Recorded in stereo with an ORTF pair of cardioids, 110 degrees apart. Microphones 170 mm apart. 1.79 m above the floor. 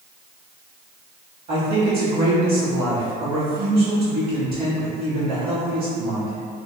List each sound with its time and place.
1.5 s a man speaking: 60° right, 1.2 m